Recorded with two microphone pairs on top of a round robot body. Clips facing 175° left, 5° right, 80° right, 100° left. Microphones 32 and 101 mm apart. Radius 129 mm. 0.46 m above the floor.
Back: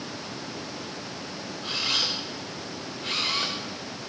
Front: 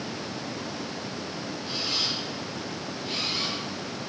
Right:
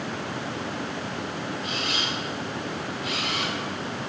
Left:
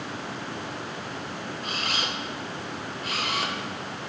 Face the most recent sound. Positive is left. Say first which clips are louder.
# back 3 dB, right 1 dB
turn(degrees=150)